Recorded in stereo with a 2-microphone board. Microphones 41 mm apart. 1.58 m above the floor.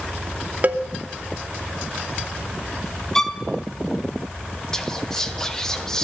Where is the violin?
10° left (ahead or behind), 0.7 m.